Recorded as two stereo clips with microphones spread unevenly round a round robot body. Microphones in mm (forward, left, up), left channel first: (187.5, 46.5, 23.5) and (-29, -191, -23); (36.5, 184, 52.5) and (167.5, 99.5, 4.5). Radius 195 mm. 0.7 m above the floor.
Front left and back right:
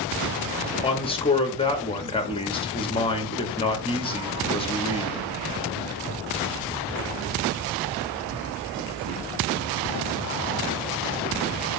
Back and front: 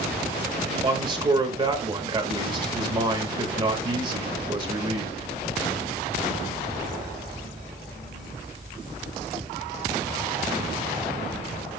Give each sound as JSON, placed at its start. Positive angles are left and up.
{"t": 0.8, "sound": "a man speaking", "azimuth_deg": -30, "distance_m": 1.2}